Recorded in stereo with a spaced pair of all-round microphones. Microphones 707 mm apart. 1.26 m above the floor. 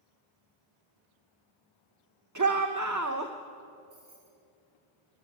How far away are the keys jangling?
About 8.5 m.